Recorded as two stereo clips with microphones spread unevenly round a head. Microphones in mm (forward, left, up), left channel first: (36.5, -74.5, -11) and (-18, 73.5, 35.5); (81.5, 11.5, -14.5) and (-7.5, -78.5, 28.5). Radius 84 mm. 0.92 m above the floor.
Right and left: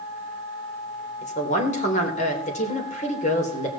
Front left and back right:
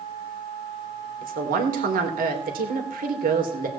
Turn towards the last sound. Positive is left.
turn(degrees=-115)